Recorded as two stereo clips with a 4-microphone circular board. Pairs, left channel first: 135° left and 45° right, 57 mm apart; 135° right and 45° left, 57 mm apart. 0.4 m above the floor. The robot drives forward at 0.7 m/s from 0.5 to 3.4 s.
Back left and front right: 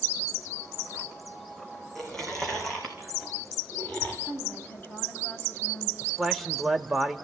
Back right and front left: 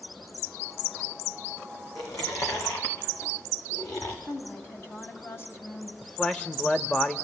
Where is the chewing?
140° right, 3.5 m; by 4.2 s 150° right, 4.5 m.